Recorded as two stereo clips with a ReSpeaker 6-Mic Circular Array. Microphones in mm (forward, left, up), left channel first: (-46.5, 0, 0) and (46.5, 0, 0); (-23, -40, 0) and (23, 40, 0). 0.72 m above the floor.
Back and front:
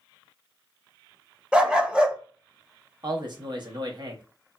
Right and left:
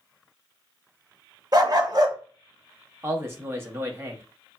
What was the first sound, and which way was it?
A dog barking, 75° left.